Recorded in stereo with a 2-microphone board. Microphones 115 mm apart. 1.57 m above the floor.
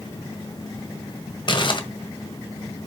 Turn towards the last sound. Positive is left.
turn(degrees=45)  # may be behind; listen again after turning